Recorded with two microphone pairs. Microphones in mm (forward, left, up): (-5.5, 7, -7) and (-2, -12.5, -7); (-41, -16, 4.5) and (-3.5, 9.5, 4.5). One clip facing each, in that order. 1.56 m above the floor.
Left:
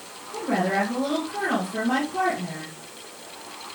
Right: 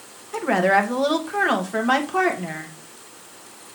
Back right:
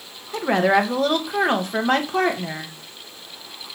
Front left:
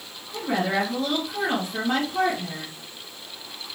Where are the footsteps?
No footsteps in this recording.